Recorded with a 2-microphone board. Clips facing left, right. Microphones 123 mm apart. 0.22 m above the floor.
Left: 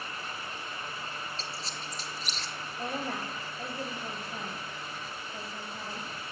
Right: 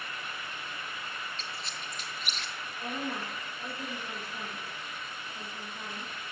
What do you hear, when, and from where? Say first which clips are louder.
1.4 s a squeak: left 2 dB; 35° left (ahead or behind), 1.0 m
2.8 s a woman speaking: left 1 dB; 50° left (ahead or behind), 4.5 m